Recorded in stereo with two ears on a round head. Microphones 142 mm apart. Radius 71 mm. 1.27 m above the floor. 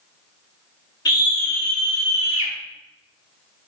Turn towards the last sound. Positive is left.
turn(degrees=-20)  # may be behind; listen again after turning